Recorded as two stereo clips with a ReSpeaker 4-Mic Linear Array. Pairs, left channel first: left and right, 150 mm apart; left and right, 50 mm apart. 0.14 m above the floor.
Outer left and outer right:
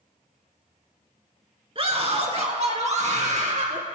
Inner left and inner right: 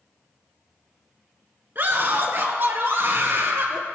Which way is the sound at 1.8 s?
40° right (ahead or behind).